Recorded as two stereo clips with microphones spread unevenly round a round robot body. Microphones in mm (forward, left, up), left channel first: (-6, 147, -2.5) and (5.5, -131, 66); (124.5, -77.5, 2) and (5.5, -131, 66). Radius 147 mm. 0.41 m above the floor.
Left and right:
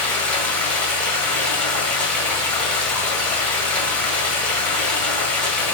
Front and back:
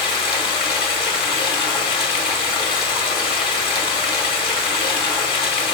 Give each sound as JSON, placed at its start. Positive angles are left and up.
{"t": 0.0, "sound": "running water", "azimuth_deg": 15, "distance_m": 1.7}